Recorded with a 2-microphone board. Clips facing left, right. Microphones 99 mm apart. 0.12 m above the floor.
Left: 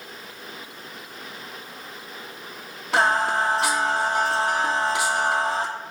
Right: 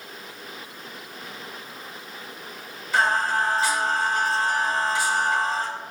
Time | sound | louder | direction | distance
2.9 | singing | left 1 dB | 75° left (ahead or behind) | 1.4 m